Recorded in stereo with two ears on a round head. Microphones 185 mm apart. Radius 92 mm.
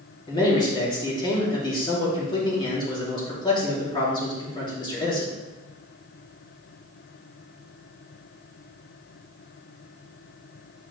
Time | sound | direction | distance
0.3 | a man speaking | 20° left (ahead or behind) | 2.5 m